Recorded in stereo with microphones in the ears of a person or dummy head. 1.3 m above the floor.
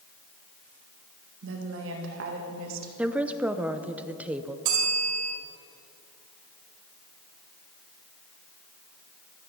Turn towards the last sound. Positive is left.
turn(degrees=-50)  # may be behind; listen again after turning